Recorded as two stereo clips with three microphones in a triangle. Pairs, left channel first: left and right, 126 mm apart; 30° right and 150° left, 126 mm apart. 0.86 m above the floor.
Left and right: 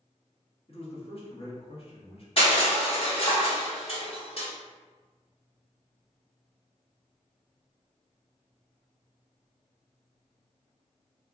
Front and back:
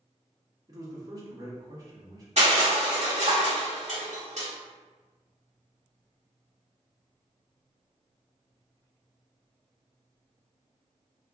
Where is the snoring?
No snoring in this recording.